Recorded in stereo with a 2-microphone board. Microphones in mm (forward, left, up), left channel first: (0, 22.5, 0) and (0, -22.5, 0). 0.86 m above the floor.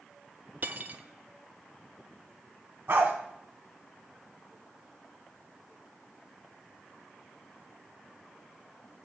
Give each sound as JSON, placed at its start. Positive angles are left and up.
{"t": 0.6, "sound": "cutlery clinking", "side_deg": -45, "distance_m": 0.5}
{"t": 2.9, "sound": "a dog barking", "side_deg": -65, "distance_m": 2.0}